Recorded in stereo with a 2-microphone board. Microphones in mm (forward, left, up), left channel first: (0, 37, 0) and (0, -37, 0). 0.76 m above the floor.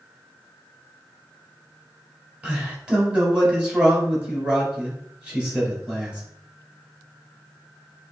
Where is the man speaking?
15° right (ahead or behind), 2.5 m.